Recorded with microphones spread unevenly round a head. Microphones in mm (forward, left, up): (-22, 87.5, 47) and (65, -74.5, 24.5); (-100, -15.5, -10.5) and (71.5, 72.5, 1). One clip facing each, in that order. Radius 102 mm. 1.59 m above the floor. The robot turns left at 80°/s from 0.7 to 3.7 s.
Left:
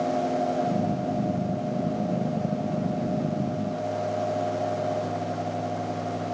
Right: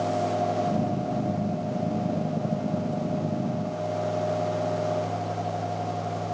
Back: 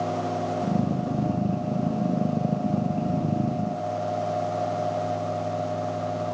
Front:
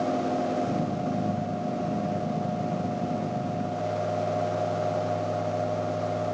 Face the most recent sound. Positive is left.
No sound to turn to.